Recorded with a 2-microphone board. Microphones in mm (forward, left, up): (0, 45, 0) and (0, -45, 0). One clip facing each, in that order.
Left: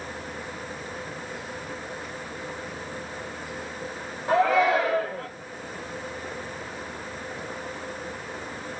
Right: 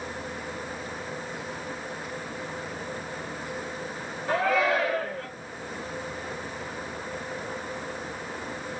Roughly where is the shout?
Left.